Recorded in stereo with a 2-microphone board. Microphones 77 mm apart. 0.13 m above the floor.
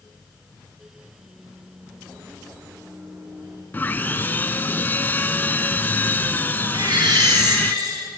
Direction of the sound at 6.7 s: 55° right (ahead or behind).